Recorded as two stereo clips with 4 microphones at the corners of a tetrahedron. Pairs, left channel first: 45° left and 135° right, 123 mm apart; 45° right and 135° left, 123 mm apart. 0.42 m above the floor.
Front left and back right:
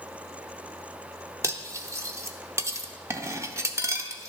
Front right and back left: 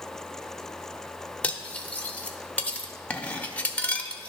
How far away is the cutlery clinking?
About 0.6 m.